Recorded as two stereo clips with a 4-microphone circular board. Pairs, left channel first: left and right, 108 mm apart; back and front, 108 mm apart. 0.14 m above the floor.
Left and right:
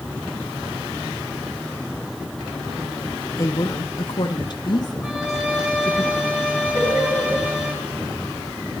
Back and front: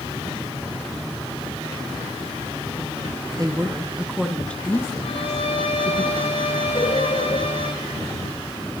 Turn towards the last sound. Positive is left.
turn(degrees=-140)